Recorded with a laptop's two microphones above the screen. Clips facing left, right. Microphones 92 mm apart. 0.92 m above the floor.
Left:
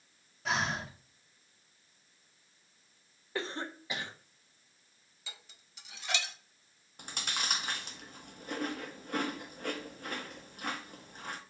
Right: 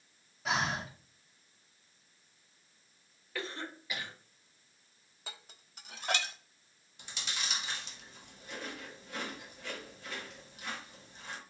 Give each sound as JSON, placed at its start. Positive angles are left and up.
{"t": 0.5, "sound": "breathing", "side_deg": -5, "distance_m": 2.0}
{"t": 3.4, "sound": "a cough", "side_deg": 30, "distance_m": 1.1}
{"t": 5.3, "sound": "dishes clattering", "side_deg": -50, "distance_m": 1.0}
{"t": 7.0, "sound": "chewing", "side_deg": 50, "distance_m": 1.0}